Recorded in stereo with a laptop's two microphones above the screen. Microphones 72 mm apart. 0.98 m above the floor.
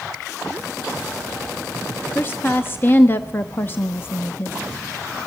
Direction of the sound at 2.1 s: 30° left (ahead or behind).